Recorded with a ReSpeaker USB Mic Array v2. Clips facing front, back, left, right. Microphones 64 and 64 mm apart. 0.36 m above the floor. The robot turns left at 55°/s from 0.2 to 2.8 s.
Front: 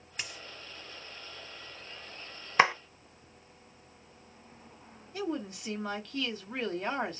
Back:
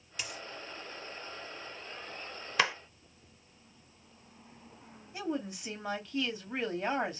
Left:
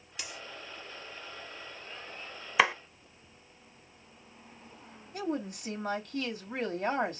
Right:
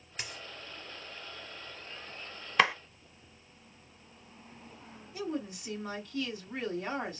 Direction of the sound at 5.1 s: 105° left.